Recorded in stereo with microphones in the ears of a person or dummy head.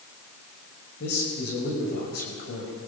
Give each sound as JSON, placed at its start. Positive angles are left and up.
{"t": 1.0, "sound": "a man speaking", "side_deg": 50, "distance_m": 6.0}